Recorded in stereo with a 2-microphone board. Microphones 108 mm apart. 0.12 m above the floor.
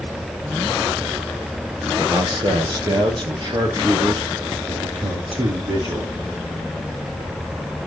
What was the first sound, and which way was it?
A man speaking, 35° right (ahead or behind).